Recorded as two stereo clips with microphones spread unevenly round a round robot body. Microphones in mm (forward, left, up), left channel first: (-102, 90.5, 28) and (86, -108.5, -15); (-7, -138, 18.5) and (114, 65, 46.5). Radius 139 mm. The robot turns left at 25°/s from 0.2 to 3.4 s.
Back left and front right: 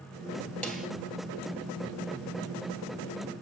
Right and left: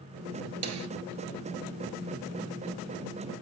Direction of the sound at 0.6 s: 50° left.